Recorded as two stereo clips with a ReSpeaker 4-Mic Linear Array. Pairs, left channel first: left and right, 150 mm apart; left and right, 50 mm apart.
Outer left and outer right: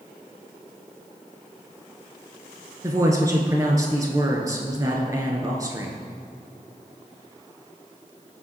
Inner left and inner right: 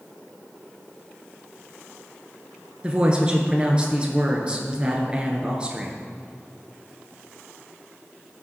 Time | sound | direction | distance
2.8 | a woman speaking | 20° right (ahead or behind) | 1.2 m